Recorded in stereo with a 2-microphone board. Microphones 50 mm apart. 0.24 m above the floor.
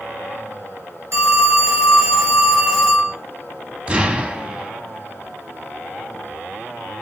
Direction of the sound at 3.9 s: 20° right (ahead or behind).